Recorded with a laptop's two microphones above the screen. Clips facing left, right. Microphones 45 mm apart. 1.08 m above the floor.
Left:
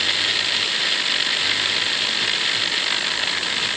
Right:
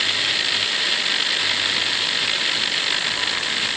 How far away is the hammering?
No hammering in this recording.